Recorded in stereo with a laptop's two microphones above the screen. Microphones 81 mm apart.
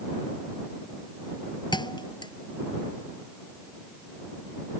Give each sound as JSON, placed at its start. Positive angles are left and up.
{"t": 1.7, "sound": "a thud", "side_deg": 70}